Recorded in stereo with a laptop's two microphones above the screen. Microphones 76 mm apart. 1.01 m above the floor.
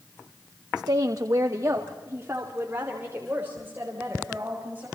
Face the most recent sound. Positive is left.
turn(degrees=-25)  # may be behind; listen again after turning